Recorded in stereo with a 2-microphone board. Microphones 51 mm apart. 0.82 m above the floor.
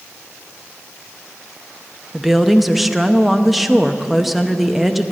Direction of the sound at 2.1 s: Centre (ahead or behind).